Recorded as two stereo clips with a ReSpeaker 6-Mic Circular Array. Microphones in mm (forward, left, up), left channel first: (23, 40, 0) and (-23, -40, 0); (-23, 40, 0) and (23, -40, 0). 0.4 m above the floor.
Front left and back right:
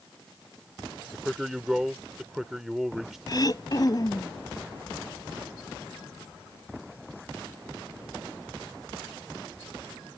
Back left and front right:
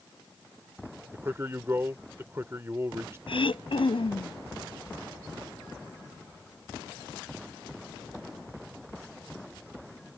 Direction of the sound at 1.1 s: 35° right.